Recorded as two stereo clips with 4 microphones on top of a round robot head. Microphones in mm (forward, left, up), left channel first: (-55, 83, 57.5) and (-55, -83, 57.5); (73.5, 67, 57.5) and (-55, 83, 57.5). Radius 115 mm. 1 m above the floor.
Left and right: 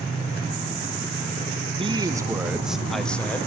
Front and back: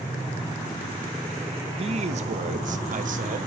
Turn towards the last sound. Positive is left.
turn(degrees=170)